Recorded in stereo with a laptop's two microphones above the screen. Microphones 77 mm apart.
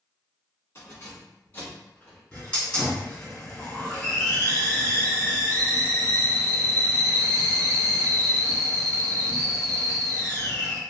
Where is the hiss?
15° left (ahead or behind), 2.0 m.